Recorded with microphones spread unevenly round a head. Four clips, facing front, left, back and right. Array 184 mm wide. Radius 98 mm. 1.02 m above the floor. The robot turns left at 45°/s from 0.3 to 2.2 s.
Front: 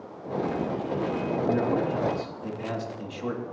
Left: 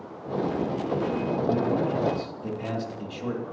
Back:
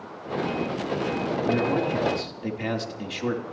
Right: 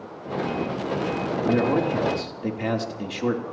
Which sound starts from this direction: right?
A man speaking, at 1.4 s.